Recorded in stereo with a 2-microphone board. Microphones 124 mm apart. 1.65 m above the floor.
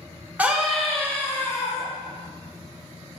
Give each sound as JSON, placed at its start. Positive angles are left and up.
{"t": 0.4, "sound": "a scream", "side_deg": -10, "distance_m": 2.0}